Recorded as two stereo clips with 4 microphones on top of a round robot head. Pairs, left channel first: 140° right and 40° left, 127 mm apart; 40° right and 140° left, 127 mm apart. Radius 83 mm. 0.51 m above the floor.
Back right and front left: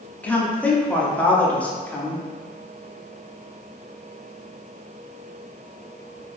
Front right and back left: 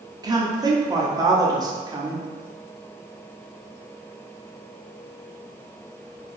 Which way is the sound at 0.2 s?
150° left.